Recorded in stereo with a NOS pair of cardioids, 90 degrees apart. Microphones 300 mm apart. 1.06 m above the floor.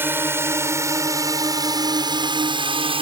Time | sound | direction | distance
0.0 | a drone | 5° right | ?